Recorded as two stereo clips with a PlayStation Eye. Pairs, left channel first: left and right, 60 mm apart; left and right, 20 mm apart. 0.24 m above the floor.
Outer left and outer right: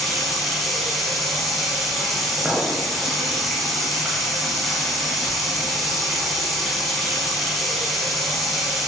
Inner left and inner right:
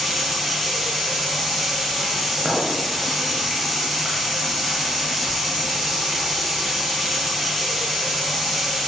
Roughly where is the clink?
Centre.